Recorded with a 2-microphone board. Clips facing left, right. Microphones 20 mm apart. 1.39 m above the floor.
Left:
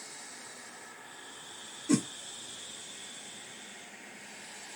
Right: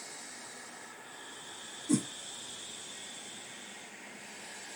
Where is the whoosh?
50° left (ahead or behind), 0.6 m.